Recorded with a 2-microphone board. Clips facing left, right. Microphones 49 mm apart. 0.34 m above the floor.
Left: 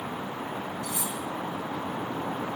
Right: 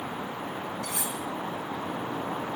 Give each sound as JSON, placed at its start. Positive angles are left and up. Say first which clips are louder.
{"t": 0.8, "sound": "cutlery clinking", "louder": "even", "side_deg": -60, "distance_m": 1.7}